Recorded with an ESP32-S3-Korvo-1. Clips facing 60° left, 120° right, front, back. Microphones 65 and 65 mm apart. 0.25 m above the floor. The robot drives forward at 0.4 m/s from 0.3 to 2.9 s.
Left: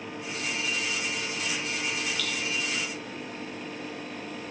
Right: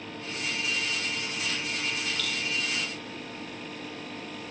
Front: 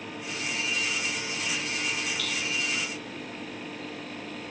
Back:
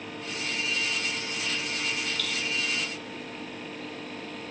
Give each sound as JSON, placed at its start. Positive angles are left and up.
{"t": 2.2, "sound": "dripping", "azimuth_deg": 155, "distance_m": 4.5}